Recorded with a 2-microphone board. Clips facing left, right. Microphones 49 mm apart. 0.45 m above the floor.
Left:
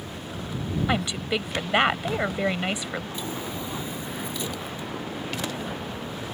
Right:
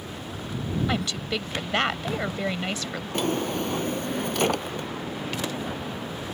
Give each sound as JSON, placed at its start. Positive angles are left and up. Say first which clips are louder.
{"t": 0.9, "sound": "a woman speaking", "louder": "left 2 dB", "side_deg": 15}
{"t": 3.1, "sound": "a drawer", "louder": "right 6 dB", "side_deg": -65}